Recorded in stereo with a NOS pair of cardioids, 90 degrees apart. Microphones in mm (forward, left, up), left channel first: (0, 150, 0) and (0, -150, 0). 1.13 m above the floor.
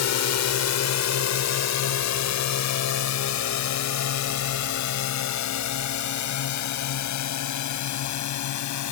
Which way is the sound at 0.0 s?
65° left.